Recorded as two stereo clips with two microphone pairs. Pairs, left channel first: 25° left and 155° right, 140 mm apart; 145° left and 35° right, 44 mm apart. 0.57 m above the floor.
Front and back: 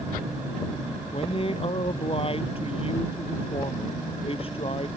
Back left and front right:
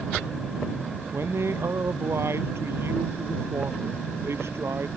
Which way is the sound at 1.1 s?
20° right.